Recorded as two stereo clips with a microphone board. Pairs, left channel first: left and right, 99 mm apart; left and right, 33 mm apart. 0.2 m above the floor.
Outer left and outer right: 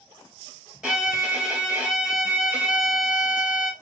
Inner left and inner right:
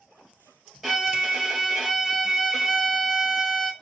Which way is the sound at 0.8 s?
5° right (ahead or behind).